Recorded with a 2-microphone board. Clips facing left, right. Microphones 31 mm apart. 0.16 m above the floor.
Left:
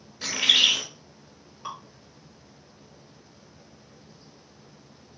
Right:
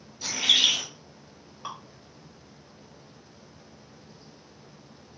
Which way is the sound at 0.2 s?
50° left (ahead or behind).